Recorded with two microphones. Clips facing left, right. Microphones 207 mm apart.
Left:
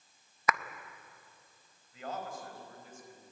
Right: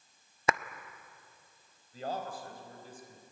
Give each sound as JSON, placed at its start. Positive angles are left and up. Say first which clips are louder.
{"t": 0.5, "sound": "a clap", "louder": "right 1 dB", "side_deg": -30, "distance_m": 0.5}
{"t": 1.9, "sound": "a man speaking", "louder": "right 3 dB", "side_deg": -35, "distance_m": 4.0}